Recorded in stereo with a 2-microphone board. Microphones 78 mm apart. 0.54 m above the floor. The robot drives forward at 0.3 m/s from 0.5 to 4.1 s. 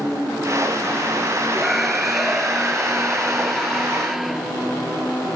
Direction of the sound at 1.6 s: 5° right (ahead or behind).